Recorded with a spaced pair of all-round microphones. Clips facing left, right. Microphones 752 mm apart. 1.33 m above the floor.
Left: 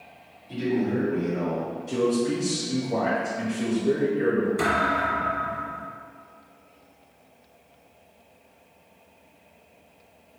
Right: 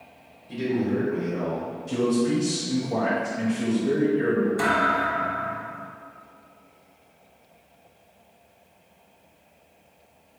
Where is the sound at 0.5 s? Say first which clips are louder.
Even; 30° right (ahead or behind), 1.7 m.